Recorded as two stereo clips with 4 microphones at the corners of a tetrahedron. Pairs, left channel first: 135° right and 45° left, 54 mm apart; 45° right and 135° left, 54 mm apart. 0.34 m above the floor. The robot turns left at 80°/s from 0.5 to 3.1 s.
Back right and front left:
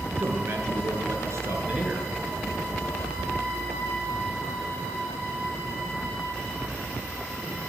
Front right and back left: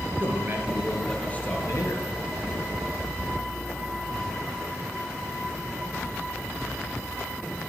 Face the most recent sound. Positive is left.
turn(degrees=-125)